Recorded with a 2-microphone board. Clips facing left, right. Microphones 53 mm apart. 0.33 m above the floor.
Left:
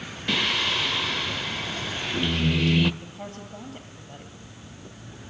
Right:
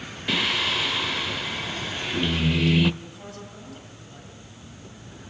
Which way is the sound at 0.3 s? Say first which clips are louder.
Even; centre (ahead or behind).